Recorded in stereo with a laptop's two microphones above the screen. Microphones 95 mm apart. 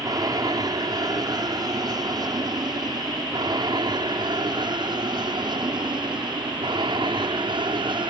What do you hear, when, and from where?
0.0 s an aircraft: 40° right (ahead or behind); by 8.1 s 50° right (ahead or behind)